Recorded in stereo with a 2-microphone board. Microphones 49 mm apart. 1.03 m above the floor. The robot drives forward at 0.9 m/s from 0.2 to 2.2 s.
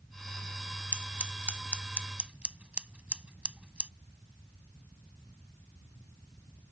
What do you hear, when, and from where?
0.9 s scissors: 45° right (ahead or behind); by 3.9 s 25° right (ahead or behind)